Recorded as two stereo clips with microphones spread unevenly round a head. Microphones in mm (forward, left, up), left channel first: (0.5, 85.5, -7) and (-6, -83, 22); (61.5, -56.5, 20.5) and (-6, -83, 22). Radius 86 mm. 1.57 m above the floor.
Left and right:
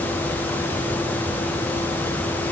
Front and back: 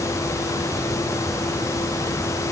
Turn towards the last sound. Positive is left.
No sound to turn to.